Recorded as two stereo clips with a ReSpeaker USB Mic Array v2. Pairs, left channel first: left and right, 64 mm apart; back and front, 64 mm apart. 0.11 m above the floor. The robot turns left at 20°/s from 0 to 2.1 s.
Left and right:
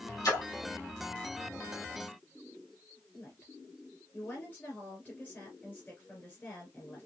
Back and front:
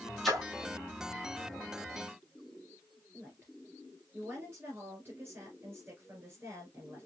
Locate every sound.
0.2 s a splash: 95° left, 2.5 m; by 0.5 s 90° left, 2.5 m
3.1 s a woman speaking: 40° left, 2.5 m